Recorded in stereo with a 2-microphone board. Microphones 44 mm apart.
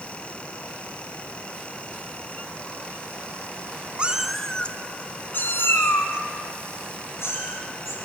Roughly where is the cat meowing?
Right.